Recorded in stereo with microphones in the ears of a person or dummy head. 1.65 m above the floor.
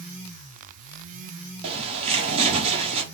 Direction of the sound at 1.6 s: 35° right (ahead or behind).